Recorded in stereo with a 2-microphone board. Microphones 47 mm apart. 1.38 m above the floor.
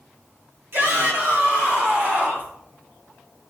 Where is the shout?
55° right (ahead or behind), 3 m; by 2.5 s 30° right (ahead or behind), 3 m.